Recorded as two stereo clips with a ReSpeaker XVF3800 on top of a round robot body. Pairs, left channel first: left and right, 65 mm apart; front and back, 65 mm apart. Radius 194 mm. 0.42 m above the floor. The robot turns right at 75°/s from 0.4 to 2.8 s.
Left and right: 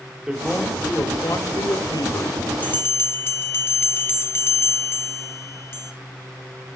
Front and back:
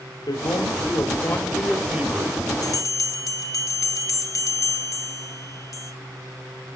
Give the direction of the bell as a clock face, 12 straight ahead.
11 o'clock.